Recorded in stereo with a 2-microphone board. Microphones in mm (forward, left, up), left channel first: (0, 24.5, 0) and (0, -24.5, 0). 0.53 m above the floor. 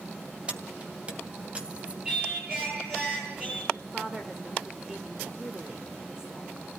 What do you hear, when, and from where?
0.5 s keys jangling: 25° right (ahead or behind), 2.5 m
2.0 s singing: 20° right (ahead or behind), 9.5 m
3.7 s a woman speaking: 15° right (ahead or behind), 1.9 m